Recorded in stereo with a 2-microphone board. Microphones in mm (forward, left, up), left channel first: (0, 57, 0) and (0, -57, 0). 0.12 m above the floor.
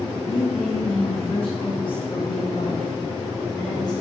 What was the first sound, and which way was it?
A woman speaking, 60° left (ahead or behind).